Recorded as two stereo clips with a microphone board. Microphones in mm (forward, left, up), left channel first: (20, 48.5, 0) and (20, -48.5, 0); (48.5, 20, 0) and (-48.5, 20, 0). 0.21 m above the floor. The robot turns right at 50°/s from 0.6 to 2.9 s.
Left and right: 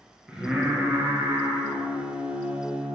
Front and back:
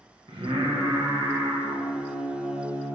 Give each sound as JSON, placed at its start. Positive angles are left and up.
{"t": 0.3, "sound": "singing", "azimuth_deg": -170, "distance_m": 2.0}